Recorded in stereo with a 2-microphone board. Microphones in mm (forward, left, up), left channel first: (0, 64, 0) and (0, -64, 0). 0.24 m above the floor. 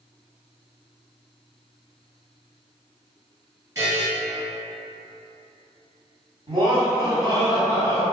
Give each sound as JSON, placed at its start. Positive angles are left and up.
{"t": 3.8, "sound": "a buzzer", "side_deg": -25, "distance_m": 1.6}
{"t": 6.5, "sound": "laughter", "side_deg": -40, "distance_m": 1.3}